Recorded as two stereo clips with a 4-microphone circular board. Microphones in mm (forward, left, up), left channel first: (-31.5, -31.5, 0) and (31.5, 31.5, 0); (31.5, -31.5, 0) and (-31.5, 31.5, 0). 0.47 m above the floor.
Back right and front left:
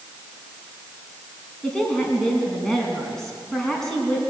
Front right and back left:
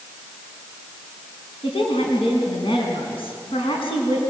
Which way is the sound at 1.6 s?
55° right.